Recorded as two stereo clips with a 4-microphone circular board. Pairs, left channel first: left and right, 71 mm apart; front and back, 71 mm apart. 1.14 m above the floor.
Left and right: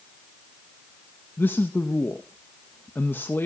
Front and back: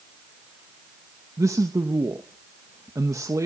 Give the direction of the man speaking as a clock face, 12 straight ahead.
7 o'clock.